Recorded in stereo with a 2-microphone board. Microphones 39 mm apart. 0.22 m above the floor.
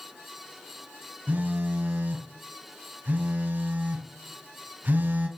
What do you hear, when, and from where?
1.3 s a phone buzzing: 55° right (ahead or behind), 1.8 m